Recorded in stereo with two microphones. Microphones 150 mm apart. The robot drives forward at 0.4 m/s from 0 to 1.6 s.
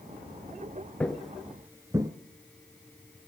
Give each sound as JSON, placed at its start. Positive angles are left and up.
{"t": 1.0, "sound": "footsteps", "side_deg": 5, "distance_m": 1.0}